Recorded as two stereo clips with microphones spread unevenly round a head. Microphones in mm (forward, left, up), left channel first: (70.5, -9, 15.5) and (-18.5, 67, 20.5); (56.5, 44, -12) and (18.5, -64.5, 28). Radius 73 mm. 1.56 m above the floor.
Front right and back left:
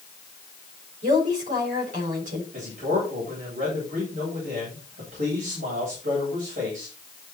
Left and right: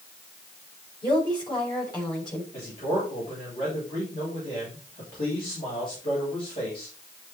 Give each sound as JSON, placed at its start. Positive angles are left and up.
{"t": 1.0, "sound": "a woman speaking", "azimuth_deg": 135, "distance_m": 7.0}
{"t": 2.5, "sound": "a man speaking", "azimuth_deg": 125, "distance_m": 9.5}